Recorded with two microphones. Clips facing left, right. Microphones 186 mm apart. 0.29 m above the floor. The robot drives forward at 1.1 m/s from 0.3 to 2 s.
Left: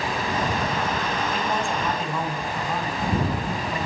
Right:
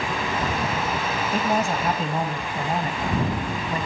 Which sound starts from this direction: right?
A man speaking, at 1.3 s.